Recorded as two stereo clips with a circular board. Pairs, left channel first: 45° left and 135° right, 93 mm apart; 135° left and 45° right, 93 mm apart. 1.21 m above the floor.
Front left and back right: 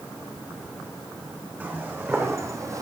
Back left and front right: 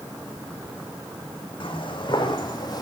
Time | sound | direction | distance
1.6 | footsteps | 155° left | 3.5 m